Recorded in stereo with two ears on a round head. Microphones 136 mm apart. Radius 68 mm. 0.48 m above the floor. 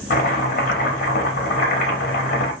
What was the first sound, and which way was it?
Chopping, 60° left (ahead or behind).